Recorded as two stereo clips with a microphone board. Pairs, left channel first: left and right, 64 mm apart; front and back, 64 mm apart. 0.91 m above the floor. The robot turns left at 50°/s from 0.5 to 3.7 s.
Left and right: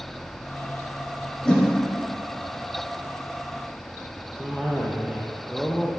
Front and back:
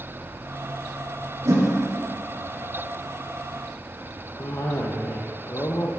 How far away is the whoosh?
About 1.3 m.